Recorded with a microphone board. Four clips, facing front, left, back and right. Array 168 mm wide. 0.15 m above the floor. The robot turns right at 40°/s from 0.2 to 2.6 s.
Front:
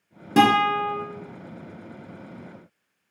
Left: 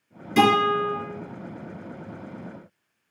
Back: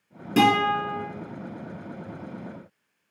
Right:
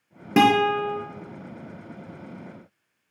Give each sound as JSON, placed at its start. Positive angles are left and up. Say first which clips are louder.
{"t": 0.4, "sound": "a guitar", "louder": "right 1 dB, front 2 dB", "azimuth_deg": -65, "distance_m": 0.6}